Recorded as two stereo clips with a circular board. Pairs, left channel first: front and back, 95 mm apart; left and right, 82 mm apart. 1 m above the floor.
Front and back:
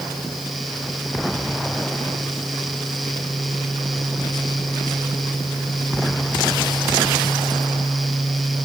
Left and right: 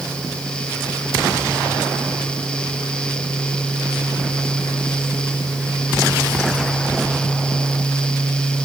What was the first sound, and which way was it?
Only background noise.